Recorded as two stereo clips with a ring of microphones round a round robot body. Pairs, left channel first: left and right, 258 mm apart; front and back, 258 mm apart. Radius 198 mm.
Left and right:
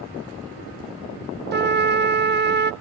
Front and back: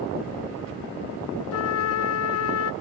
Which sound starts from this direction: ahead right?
A trumpet, at 1.5 s.